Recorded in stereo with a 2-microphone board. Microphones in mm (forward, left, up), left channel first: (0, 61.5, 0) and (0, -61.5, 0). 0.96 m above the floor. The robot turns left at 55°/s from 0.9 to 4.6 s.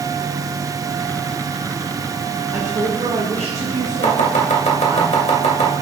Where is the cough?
No cough in this recording.